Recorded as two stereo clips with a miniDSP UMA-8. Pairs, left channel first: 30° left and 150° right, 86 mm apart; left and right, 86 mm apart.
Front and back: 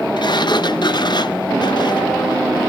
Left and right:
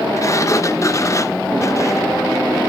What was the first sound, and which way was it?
A sliding door, 45° left.